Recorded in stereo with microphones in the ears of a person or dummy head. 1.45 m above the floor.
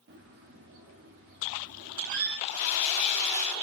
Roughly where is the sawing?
Left.